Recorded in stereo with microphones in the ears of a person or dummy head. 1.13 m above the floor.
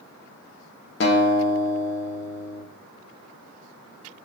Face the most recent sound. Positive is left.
turn(degrees=55)  # may be behind; listen again after turning